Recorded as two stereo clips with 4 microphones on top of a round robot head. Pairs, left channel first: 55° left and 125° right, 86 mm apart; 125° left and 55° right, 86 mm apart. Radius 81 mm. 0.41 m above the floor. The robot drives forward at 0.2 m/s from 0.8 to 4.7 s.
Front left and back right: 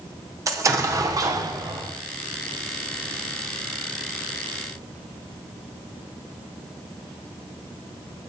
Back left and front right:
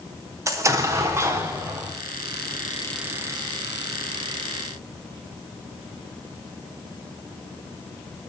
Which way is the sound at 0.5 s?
90° right.